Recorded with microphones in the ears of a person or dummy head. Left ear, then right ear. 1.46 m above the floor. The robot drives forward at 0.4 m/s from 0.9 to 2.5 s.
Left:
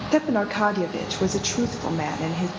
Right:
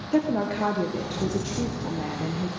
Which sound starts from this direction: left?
A woman speaking, at 0.1 s.